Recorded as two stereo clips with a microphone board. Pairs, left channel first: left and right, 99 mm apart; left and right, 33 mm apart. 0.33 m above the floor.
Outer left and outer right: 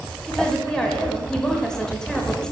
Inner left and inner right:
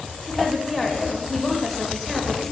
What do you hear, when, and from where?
0.3 s a woman speaking: 5° left (ahead or behind), 1.1 m